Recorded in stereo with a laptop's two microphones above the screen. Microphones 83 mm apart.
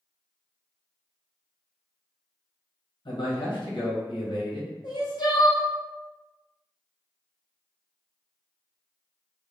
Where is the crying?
60° left (ahead or behind), 0.9 m.